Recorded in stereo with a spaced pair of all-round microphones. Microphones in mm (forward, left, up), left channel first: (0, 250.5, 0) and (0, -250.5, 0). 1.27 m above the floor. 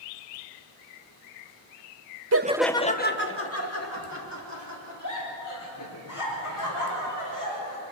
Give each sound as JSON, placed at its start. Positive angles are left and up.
{"t": 2.3, "sound": "laughter", "side_deg": -30, "distance_m": 0.6}